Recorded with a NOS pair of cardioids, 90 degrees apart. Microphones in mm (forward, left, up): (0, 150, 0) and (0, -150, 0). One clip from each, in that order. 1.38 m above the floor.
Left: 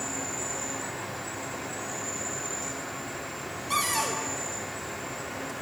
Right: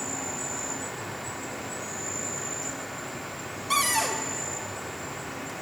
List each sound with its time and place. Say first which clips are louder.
0.0 s an insect: even; 5° right, 3 m
3.7 s a cupboard door: right 2 dB; 25° right, 1.5 m